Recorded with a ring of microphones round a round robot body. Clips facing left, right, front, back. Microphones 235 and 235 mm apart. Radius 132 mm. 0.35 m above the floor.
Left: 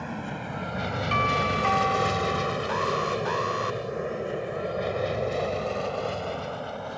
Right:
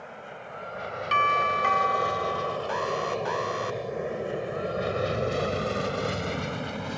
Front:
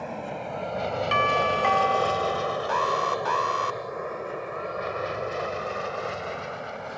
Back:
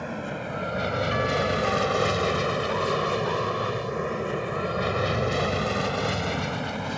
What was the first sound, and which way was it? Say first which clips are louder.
An aircraft: left 8 dB, back 2 dB; 110° left.